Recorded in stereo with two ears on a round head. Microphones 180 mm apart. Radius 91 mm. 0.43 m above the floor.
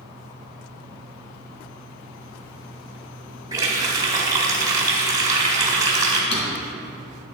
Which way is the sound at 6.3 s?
60° left (ahead or behind).